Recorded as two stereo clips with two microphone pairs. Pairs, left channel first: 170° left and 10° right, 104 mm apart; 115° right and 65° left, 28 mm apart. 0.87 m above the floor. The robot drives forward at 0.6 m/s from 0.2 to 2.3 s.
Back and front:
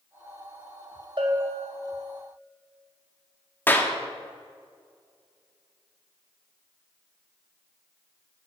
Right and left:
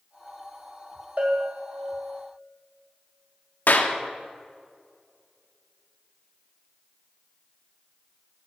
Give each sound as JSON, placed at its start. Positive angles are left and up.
{"t": 1.2, "sound": "a bell", "azimuth_deg": 30, "distance_m": 2.0}
{"t": 3.7, "sound": "a clap", "azimuth_deg": -120, "distance_m": 1.3}